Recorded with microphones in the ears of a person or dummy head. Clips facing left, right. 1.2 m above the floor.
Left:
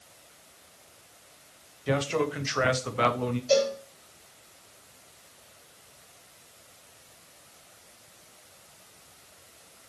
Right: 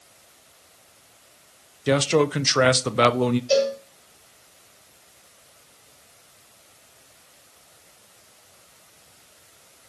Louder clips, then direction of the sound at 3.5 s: Even; 10° right (ahead or behind).